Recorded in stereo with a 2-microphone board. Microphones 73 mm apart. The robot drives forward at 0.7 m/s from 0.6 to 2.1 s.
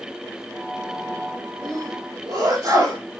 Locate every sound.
1.6 s a sneeze: 55° right (ahead or behind), 7 m; by 3.0 s 60° right (ahead or behind), 7 m